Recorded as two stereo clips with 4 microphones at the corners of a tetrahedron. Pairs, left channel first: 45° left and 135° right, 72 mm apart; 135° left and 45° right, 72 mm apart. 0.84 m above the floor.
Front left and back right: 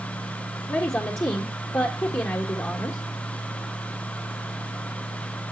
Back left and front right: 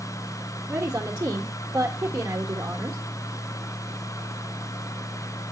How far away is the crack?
No crack in this recording.